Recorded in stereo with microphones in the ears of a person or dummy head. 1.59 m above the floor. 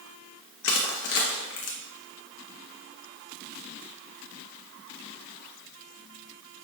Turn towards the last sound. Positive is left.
turn(degrees=70)  # may be behind; listen again after turning